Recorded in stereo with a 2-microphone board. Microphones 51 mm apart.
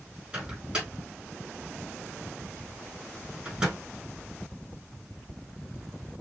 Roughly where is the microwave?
Centre.